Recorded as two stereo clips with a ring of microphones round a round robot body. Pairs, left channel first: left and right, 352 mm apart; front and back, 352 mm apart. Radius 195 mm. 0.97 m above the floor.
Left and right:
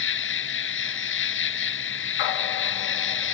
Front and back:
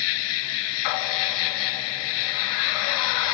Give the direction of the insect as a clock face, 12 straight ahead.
11 o'clock.